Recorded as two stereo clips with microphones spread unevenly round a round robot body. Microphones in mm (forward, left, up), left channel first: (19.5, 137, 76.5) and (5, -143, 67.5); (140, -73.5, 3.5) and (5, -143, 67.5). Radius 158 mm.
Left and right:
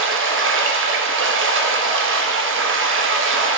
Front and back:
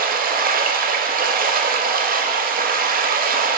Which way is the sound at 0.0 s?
115° right.